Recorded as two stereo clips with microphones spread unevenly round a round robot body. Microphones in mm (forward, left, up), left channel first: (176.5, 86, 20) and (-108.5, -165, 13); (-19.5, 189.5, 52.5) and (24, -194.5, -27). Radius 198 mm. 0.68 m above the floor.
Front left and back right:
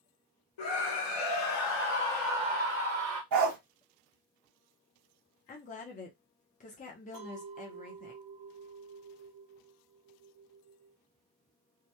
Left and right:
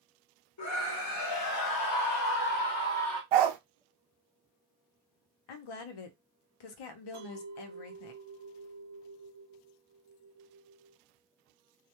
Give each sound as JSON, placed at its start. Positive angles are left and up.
{"t": 0.6, "sound": "a scream", "azimuth_deg": 50, "distance_m": 1.2}
{"t": 3.3, "sound": "a dog barking", "azimuth_deg": -95, "distance_m": 0.7}
{"t": 5.5, "sound": "a woman speaking", "azimuth_deg": 105, "distance_m": 0.6}
{"t": 7.1, "sound": "a clink", "azimuth_deg": -115, "distance_m": 1.0}